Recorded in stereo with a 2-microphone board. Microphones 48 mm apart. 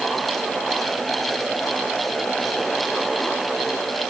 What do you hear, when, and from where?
Only background noise.